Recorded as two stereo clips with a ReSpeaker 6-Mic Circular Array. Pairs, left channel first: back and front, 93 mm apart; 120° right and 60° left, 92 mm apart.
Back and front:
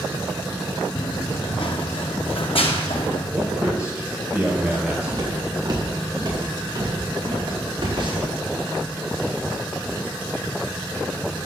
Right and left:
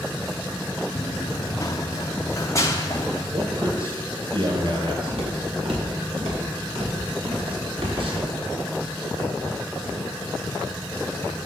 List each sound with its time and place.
0.9 s running footsteps: 160° right, 1.0 m; by 3.2 s straight behind, 2.5 m
3.3 s a man speaking: 80° left, 4 m
5.1 s footsteps: 50° left, 5.5 m; by 8.3 s 35° left, 6.5 m